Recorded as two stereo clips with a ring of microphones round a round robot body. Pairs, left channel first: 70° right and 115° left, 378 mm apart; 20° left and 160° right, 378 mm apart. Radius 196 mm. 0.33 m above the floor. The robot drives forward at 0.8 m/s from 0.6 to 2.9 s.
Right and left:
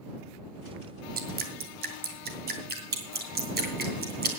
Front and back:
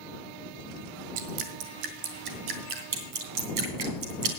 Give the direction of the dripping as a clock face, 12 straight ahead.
6 o'clock.